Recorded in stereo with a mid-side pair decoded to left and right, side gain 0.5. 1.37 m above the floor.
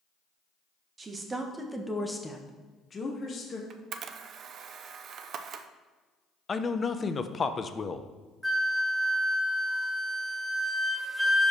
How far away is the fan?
No fan in this recording.